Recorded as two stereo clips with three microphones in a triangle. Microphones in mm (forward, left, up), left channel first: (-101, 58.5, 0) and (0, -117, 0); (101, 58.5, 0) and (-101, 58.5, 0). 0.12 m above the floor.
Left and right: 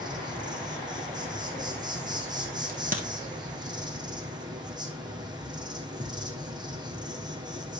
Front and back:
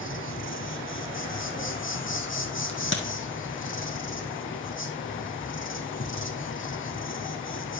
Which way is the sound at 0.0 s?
10° left.